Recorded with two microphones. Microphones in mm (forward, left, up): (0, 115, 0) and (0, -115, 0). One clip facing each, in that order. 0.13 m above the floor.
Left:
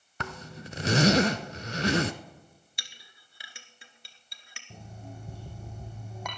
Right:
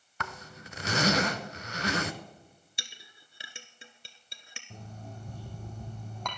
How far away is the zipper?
About 0.6 m.